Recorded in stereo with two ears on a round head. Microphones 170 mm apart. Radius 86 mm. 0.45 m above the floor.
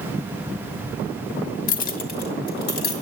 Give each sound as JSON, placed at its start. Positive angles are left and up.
{"t": 1.7, "sound": "keys jangling", "side_deg": 45, "distance_m": 0.8}